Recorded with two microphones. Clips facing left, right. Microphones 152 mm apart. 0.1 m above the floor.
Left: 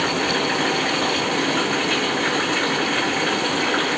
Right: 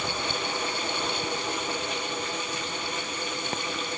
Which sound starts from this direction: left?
Running water, at 0.0 s.